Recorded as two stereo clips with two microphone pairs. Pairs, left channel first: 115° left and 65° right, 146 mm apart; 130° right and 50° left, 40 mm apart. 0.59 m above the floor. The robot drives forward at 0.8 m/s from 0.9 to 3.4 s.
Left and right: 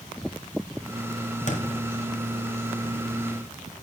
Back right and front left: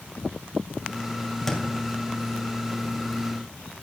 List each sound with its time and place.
1.5 s a thud: 150° left, 1.2 m